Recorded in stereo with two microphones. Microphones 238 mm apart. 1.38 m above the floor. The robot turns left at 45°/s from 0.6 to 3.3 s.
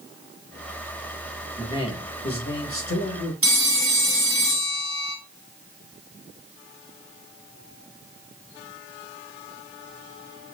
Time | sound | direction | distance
1.6 | a man speaking | 170° left | 1.3 m
3.4 | a phone ringing | 65° right (ahead or behind) | 1.1 m